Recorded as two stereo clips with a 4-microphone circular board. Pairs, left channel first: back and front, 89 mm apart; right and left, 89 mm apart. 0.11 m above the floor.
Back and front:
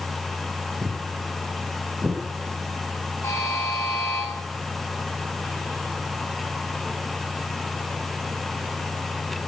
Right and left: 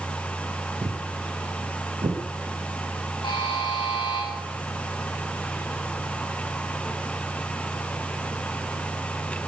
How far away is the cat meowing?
I don't hear a cat meowing.